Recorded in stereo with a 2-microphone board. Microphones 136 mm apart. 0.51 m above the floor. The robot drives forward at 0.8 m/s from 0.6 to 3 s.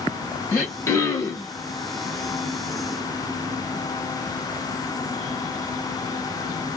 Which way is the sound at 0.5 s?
15° left (ahead or behind).